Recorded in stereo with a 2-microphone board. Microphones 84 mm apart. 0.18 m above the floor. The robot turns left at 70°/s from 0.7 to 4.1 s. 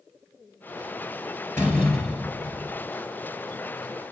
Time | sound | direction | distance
1.6 | a door slam | 30° left | 3 m